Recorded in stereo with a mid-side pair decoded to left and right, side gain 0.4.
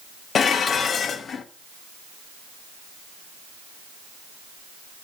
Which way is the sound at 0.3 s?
60° left.